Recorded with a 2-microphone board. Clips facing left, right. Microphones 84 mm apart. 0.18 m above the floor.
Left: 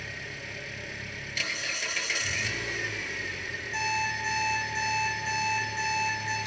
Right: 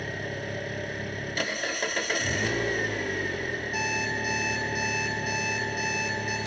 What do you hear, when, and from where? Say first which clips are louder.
0.0 s an engine running: right 7 dB; 50° right (ahead or behind), 1.0 m
3.7 s an alarm clock: left 2 dB; 10° right (ahead or behind), 6 m